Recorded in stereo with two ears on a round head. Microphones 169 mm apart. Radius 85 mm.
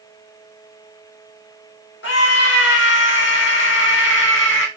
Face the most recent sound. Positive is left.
turn(degrees=65)  # may be behind; listen again after turning